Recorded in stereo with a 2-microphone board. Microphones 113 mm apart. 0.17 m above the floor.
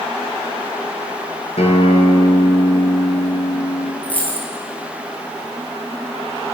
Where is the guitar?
75° left (ahead or behind), 0.8 m.